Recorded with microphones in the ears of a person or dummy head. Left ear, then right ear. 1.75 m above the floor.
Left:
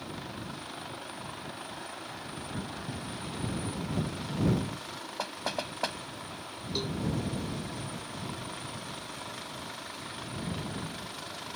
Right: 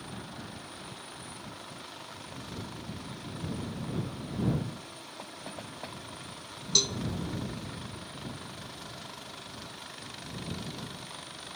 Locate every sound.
5.2 s knocking: 60° left (ahead or behind)
6.8 s a cowbell: 60° right (ahead or behind)